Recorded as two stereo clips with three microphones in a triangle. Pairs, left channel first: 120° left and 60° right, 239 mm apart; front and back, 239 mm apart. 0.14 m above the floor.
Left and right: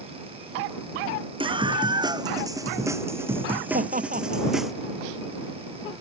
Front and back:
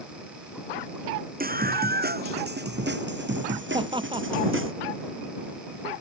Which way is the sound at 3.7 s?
115° right.